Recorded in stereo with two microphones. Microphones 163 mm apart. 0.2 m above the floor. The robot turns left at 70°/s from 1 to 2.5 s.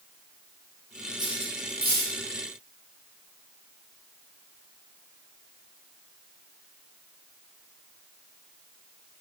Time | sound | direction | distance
1.2 | cutlery clinking | 25° right (ahead or behind) | 4.5 m